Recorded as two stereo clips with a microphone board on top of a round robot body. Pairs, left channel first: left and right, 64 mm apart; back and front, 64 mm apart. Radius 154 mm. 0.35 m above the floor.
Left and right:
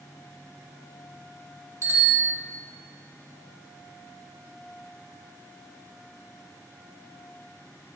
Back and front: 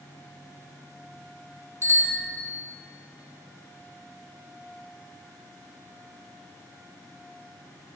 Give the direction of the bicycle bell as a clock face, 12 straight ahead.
2 o'clock.